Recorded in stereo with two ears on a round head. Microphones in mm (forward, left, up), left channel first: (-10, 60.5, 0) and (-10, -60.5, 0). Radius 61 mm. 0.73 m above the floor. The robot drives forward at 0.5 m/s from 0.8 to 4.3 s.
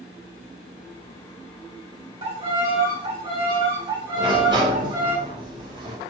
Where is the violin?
45° right (ahead or behind), 3.5 m; by 5.2 s 35° right (ahead or behind), 4 m.